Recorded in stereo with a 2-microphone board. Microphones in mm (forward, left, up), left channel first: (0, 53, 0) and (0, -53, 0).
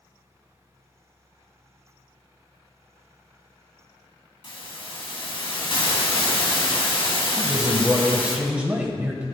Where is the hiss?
60° left (ahead or behind), 2.5 m.